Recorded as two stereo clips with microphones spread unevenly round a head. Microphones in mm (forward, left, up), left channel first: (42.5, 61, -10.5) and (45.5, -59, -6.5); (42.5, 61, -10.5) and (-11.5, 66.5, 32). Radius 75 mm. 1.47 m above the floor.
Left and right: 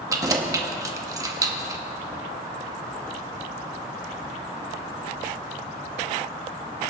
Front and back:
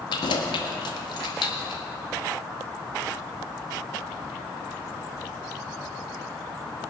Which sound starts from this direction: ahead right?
Keys jangling, at 0.1 s.